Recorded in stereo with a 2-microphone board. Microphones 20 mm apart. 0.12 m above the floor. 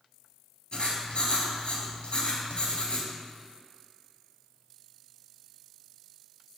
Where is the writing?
55° left (ahead or behind), 0.7 m.